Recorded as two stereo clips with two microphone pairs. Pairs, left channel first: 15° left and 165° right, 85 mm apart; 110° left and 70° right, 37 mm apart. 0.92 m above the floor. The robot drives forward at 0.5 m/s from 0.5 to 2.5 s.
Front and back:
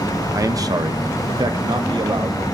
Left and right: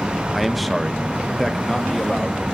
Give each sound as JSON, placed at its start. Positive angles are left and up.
{"t": 0.3, "sound": "a man speaking", "azimuth_deg": -160, "distance_m": 0.7}